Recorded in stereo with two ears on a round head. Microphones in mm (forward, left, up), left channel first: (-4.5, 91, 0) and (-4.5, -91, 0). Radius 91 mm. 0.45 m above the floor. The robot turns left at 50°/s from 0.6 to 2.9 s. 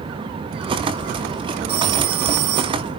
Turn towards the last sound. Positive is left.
turn(degrees=-110)